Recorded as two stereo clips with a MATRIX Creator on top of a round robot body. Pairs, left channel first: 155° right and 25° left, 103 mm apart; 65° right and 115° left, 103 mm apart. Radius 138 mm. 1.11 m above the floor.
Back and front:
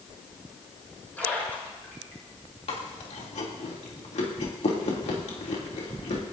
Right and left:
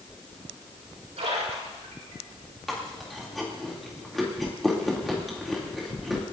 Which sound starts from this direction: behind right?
Chewing, at 2.7 s.